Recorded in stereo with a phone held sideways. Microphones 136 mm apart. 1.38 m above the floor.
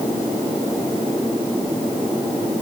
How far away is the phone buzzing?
No phone buzzing in this recording.